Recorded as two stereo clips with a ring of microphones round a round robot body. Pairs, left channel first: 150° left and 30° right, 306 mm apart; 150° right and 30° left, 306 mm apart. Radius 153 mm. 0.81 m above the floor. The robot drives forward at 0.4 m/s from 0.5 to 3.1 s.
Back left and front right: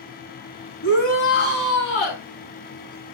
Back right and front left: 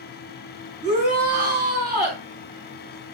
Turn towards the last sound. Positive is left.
turn(degrees=115)